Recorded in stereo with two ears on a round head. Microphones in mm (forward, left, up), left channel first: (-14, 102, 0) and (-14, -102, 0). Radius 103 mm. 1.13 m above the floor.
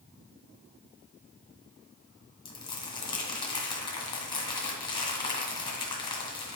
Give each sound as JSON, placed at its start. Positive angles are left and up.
{"t": 2.5, "sound": "crumpling", "side_deg": 20, "distance_m": 1.9}